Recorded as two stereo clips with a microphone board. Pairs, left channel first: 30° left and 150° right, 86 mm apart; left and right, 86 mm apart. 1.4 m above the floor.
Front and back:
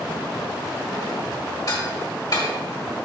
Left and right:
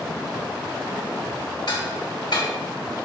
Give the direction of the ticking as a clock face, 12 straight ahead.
10 o'clock.